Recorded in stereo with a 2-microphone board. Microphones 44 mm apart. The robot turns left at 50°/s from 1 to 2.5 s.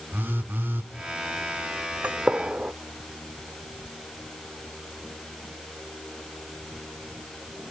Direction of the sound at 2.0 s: 40° right (ahead or behind).